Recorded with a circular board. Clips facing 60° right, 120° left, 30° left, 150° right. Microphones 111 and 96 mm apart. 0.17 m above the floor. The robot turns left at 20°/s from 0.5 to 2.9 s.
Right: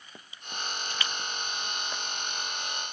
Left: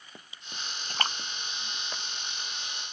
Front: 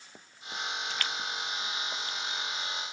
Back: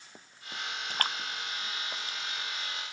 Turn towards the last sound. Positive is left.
turn(degrees=125)